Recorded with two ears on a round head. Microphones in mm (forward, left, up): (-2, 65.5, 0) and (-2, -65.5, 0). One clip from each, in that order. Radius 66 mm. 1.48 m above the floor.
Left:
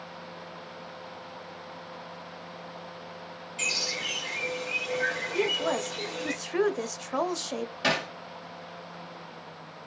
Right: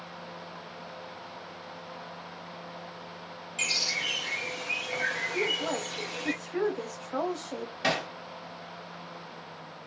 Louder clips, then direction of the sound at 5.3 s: Left 2 dB; 70° left (ahead or behind).